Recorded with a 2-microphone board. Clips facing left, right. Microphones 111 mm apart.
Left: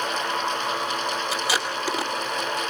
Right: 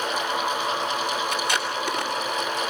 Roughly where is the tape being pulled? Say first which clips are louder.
Even; centre.